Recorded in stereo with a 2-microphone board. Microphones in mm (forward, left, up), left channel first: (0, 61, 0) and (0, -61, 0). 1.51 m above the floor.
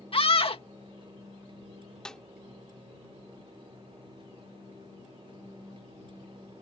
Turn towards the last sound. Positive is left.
turn(degrees=5)  # may be behind; listen again after turning